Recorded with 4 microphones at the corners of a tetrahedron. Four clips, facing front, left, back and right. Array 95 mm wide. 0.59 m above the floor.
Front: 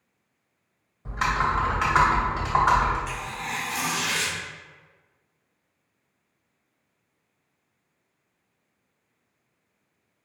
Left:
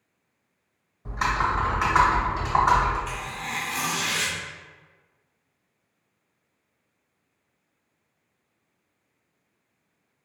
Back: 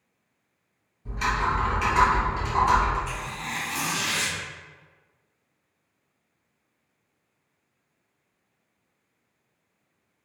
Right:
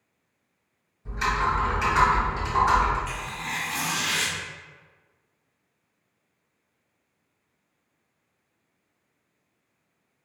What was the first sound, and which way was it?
Typing on a keyboard, 30° left.